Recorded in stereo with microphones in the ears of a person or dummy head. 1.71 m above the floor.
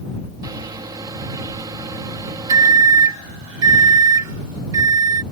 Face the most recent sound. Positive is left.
turn(degrees=-20)  # may be behind; listen again after turning